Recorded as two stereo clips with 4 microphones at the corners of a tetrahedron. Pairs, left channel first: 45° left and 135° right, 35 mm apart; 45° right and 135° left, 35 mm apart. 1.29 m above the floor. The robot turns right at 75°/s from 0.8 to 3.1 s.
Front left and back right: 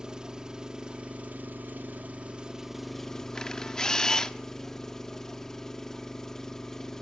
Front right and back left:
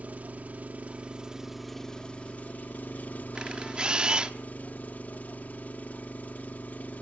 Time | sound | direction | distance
0.0 | an engine running | 160° left | 1.1 m
3.4 | a camera shutter | 95° left | 0.9 m